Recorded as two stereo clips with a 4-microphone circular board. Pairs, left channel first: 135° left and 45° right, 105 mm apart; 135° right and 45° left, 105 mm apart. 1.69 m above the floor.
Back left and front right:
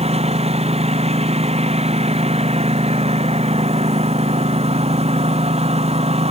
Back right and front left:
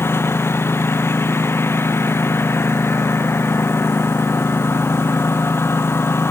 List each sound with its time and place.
0.0 s a lawn mower: 65° right